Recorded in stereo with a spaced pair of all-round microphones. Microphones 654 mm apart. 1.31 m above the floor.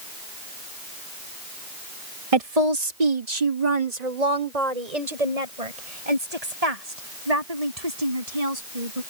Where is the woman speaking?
55° right (ahead or behind); by 9.0 s 65° right (ahead or behind).